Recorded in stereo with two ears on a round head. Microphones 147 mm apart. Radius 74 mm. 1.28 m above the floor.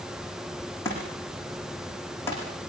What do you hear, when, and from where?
0.8 s a thud: 15° left (ahead or behind), 8.5 m